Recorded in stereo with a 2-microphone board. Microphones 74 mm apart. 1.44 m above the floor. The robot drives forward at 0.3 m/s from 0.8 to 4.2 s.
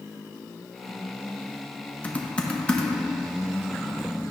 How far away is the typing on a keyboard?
About 0.7 m.